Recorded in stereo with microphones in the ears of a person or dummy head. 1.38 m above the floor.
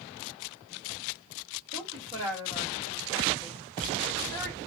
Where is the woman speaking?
25° right (ahead or behind), 2 m.